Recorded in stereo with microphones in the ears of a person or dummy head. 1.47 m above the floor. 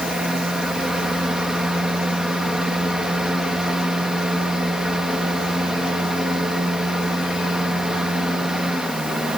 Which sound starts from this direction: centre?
A fan, at 0.0 s.